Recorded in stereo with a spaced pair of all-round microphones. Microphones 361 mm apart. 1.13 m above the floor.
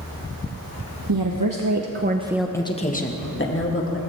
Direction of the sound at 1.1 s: 70° right (ahead or behind).